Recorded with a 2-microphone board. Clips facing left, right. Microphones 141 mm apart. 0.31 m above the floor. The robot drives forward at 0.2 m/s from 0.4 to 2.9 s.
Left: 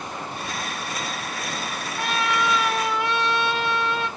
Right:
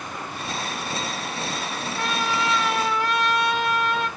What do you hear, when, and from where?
2.0 s a trumpet: centre (ahead or behind), 1.3 m